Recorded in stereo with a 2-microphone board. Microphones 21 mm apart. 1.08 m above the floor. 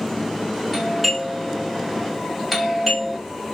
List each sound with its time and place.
0.7 s a doorbell: 5° right (ahead or behind), 1.3 m